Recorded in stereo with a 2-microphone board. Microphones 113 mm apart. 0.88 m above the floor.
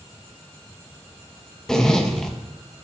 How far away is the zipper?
About 1.0 m.